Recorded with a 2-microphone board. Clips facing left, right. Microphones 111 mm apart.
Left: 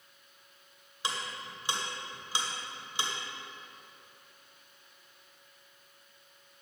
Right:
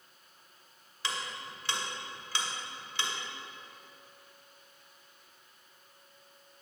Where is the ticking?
20° left (ahead or behind), 1.7 m.